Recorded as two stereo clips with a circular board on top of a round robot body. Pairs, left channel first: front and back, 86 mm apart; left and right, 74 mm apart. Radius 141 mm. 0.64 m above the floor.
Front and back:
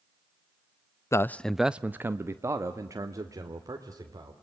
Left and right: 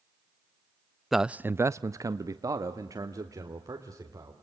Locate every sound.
1.1 s a man speaking: 5° right, 0.6 m; by 4.3 s 135° right, 2.5 m